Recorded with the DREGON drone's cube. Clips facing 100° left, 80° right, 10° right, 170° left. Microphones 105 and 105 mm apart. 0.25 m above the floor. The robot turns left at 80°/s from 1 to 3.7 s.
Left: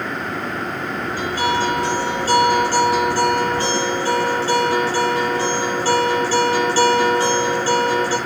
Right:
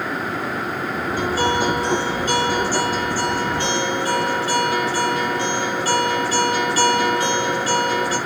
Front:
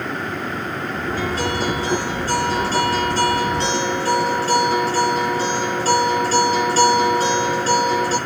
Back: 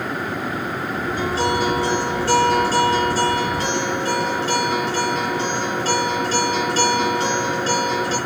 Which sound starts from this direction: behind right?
A guitar, at 1.2 s.